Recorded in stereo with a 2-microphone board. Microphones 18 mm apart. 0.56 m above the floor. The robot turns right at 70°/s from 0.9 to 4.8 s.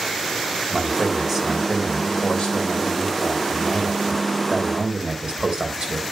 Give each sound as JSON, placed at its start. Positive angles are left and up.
{"t": 0.7, "sound": "a man speaking", "azimuth_deg": -35, "distance_m": 3.0}